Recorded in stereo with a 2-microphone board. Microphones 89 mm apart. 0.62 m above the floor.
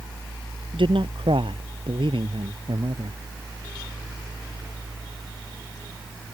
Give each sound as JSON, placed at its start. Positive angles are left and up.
{"t": 0.7, "sound": "a man speaking", "side_deg": -75}